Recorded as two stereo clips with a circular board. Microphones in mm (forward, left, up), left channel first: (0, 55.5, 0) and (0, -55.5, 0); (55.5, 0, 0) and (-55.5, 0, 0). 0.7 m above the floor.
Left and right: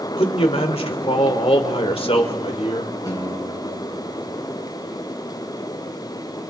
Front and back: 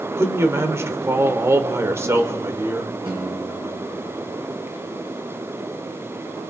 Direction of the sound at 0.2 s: 115° left.